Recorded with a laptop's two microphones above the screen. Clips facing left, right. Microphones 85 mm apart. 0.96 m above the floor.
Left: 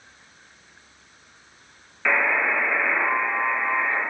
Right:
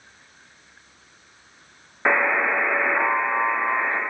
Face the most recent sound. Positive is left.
turn(degrees=-35)  # may be behind; listen again after turning